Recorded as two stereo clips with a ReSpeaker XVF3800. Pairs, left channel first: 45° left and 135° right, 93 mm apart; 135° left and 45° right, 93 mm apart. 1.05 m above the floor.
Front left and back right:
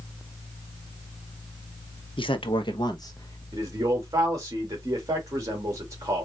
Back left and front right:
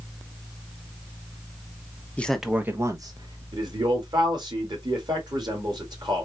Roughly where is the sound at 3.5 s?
Right.